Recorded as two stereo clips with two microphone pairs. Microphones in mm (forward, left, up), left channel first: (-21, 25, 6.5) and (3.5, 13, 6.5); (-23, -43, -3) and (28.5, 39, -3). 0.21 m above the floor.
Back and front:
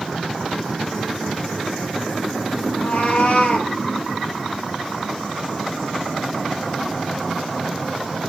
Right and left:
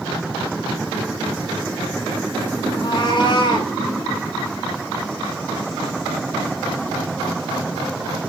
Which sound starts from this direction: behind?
A cat meowing, at 2.7 s.